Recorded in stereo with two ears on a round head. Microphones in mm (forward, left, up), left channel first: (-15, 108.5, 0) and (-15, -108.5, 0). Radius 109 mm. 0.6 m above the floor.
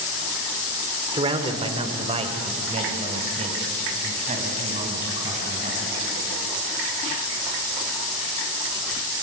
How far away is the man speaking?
About 1.8 m.